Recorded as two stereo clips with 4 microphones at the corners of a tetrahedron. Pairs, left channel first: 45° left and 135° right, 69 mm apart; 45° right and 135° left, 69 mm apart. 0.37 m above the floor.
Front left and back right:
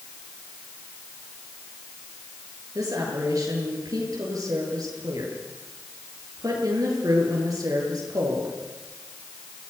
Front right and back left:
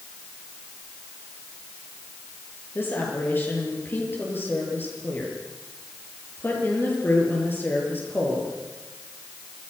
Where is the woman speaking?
105° right, 9 m.